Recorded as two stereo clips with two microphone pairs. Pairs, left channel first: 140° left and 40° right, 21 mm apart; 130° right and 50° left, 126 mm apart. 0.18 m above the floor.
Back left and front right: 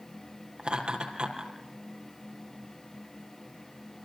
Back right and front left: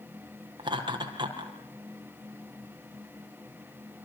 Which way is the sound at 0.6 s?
Straight ahead.